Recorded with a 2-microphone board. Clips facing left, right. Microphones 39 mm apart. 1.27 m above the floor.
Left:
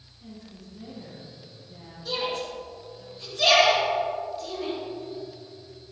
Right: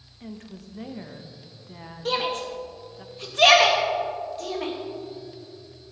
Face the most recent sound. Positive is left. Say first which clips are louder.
# right 3 dB
turn(degrees=-60)  # may be behind; listen again after turning